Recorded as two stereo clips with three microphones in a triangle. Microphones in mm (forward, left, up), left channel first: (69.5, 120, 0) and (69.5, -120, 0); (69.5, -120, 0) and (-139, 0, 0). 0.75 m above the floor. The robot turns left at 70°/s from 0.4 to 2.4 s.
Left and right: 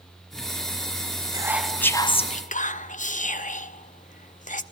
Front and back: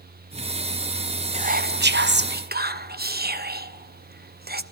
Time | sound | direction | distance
1.3 | whispering | 155° right | 0.6 m